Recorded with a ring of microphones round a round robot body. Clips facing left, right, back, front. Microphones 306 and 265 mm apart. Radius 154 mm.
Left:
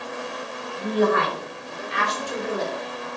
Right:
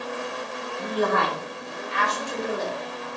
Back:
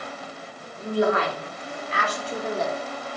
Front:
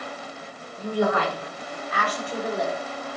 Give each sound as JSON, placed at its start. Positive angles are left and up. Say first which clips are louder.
{"t": 0.8, "sound": "a woman speaking", "louder": "left 4 dB, back 1 dB", "azimuth_deg": 115, "distance_m": 4.0}